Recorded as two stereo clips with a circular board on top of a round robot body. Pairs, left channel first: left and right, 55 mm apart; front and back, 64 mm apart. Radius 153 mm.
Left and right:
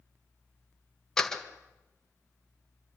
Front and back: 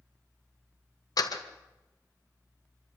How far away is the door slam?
About 2 m.